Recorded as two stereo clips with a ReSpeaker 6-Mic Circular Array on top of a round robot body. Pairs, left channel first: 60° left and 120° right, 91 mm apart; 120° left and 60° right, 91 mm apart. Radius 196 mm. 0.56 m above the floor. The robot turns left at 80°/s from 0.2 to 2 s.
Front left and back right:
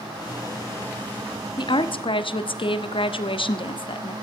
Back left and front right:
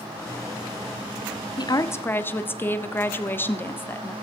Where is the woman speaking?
90° left, 1.8 m; by 4.1 s 55° left, 1.8 m.